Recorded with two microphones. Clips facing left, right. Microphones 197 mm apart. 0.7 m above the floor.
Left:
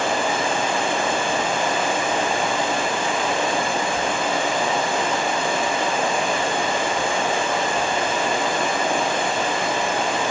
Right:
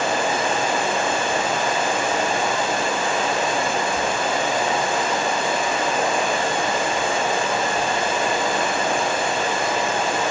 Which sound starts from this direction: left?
Running water, at 0.0 s.